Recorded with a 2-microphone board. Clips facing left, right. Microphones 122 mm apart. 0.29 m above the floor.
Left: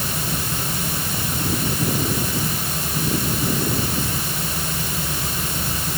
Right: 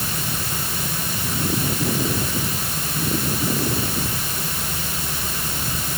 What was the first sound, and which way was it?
Only background noise.